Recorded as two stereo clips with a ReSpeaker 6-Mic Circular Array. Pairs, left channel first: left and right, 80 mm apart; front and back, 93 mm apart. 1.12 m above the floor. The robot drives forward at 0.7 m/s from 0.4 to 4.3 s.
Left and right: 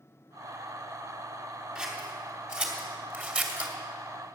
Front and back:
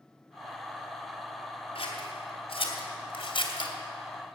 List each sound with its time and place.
1.8 s scissors: 15° right, 3 m; by 3.7 s 25° right, 1.8 m